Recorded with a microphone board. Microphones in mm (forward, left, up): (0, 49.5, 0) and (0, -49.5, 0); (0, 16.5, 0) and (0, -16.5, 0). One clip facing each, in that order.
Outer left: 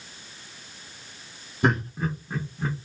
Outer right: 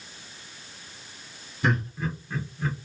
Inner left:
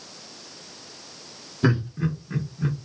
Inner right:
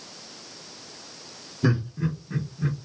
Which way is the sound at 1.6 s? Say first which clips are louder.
Outer left 3 dB, inner left 2 dB; 45° left (ahead or behind).